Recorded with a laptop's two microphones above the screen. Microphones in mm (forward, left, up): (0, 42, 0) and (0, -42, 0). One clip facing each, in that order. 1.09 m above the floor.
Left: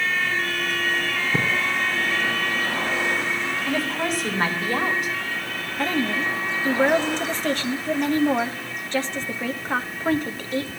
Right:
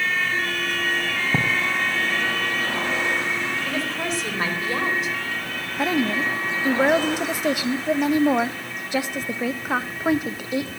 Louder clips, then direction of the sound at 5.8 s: Right 2 dB; 10° right (ahead or behind).